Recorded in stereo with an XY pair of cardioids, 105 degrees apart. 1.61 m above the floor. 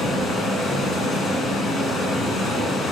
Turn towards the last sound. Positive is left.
turn(degrees=65)